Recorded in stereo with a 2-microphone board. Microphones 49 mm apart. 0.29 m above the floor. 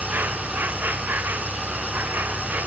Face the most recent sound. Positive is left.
turn(degrees=-40)  # may be behind; listen again after turning